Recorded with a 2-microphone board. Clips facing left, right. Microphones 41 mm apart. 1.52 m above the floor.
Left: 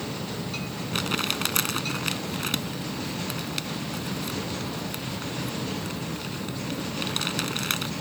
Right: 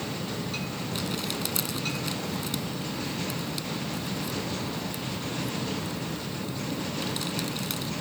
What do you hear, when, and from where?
0.9 s crumpling: 65° left (ahead or behind)